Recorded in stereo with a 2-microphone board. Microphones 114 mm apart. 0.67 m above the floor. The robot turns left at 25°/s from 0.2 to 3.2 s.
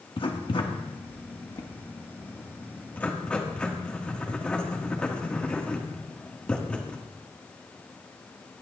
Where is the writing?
50° left (ahead or behind), 1.1 m; by 7.0 s 10° left (ahead or behind), 1.1 m.